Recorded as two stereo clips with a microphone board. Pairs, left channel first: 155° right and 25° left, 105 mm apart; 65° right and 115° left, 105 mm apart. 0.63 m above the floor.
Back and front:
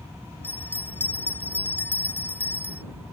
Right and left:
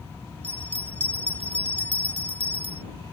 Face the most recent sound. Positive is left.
turn(degrees=130)